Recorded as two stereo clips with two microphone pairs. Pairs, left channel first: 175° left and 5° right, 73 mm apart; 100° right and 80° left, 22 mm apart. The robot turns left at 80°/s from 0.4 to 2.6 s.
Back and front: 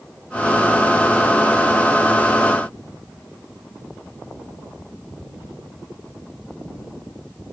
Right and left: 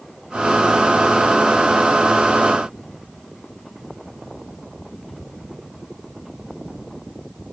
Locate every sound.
Only background noise.